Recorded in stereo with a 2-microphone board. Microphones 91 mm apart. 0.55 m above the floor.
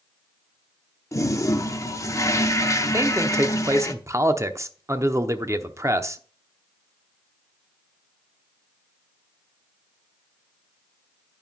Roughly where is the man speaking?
Right.